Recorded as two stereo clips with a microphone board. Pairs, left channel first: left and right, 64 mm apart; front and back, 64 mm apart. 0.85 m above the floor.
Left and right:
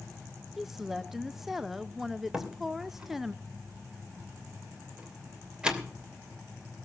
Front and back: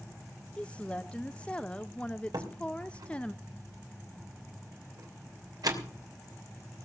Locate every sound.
0.6 s a woman speaking: 15° right, 0.7 m
2.3 s a door slam: 165° right, 2.5 m